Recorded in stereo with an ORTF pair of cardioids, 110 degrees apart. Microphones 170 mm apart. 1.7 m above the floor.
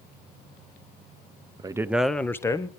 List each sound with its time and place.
1.6 s a man speaking: 25° right, 0.9 m; by 2.7 s 20° left, 1.4 m